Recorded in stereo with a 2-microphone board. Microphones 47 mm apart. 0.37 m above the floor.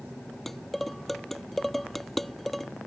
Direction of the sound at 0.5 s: Centre (ahead or behind).